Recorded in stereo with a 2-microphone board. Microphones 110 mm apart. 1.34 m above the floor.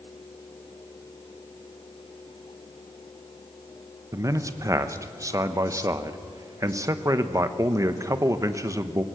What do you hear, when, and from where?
4.1 s a man speaking: 30° right (ahead or behind), 1.0 m